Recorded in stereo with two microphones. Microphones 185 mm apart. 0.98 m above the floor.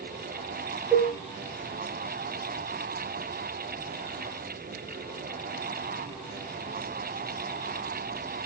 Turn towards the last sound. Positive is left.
turn(degrees=-10)  # may be behind; listen again after turning